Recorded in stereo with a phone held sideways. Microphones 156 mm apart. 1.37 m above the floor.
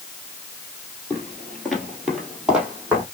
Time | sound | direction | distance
1.1 | footsteps | 10° left (ahead or behind) | 1.4 m